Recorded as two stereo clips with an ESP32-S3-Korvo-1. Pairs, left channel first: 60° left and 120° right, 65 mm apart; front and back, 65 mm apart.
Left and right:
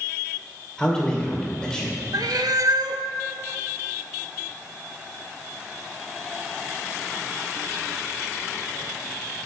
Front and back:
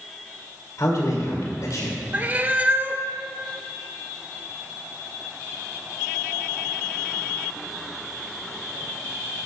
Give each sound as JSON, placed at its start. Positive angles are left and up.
{"t": 0.8, "sound": "a man speaking", "azimuth_deg": -15, "distance_m": 2.0}
{"t": 2.1, "sound": "a cat meowing", "azimuth_deg": -115, "distance_m": 0.6}